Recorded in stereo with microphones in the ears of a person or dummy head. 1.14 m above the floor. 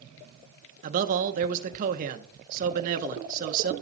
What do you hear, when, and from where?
0.8 s a man speaking: 35° right (ahead or behind), 0.9 m